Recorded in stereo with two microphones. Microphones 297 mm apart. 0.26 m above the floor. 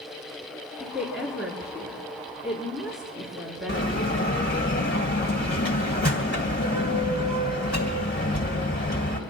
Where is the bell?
35° left (ahead or behind), 1.7 m.